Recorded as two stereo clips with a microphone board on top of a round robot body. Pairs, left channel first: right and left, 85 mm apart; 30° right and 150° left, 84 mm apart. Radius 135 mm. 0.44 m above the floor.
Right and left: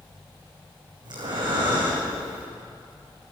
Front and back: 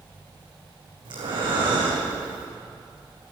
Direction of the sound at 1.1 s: 125° left.